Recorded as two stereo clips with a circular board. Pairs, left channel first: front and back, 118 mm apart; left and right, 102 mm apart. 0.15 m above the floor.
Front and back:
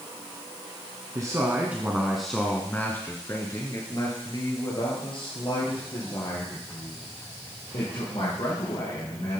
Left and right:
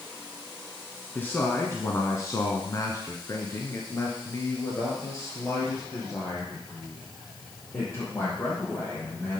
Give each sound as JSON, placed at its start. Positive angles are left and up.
{"t": 1.1, "sound": "a man speaking", "azimuth_deg": 145, "distance_m": 1.4}